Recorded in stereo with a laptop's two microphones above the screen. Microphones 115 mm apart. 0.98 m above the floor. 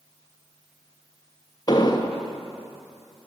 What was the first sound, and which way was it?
An explosion, 35° left (ahead or behind).